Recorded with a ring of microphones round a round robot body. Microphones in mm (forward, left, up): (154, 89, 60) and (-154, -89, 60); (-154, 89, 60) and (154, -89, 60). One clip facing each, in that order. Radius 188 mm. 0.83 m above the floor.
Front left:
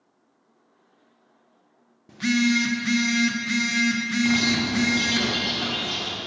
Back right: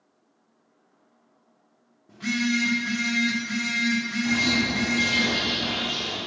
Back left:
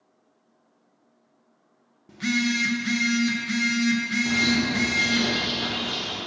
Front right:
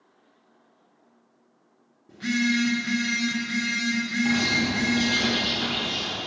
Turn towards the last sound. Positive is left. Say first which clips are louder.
# front left 3 dB, back left 1 dB
turn(degrees=50)